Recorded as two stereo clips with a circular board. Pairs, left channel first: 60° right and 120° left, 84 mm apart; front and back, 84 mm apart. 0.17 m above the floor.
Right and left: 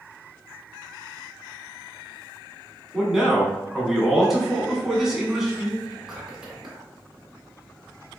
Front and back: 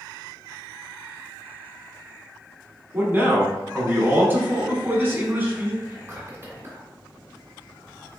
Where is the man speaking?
160° right, 1.1 m.